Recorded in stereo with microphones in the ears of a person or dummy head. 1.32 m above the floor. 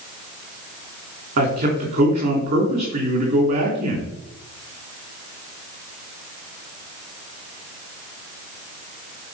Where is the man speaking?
45° right (ahead or behind), 3 m.